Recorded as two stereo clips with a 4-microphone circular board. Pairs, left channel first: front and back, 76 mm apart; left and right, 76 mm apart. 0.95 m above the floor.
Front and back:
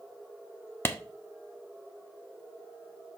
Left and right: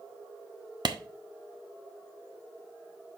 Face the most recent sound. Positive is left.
turn(degrees=-60)